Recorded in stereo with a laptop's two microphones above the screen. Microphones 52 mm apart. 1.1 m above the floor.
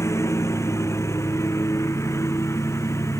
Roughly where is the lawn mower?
Left.